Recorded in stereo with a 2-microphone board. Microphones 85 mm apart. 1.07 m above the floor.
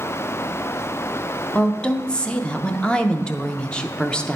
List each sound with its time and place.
1.6 s a woman speaking: 10° left (ahead or behind), 0.5 m